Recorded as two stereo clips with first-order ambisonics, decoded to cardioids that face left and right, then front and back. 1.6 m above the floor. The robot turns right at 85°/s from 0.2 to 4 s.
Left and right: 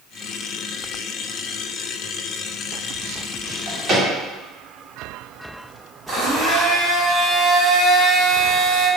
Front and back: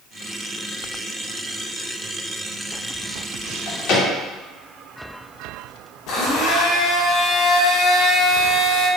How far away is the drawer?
About 1.9 m.